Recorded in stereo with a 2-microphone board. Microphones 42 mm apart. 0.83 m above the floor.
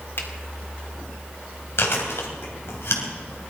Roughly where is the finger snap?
Left.